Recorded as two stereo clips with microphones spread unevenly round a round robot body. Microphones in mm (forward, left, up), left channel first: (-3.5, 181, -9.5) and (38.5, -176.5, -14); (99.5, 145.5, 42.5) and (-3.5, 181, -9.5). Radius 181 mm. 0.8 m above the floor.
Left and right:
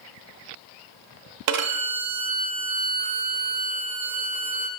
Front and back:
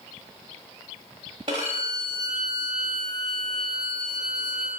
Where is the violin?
120° right, 0.7 m.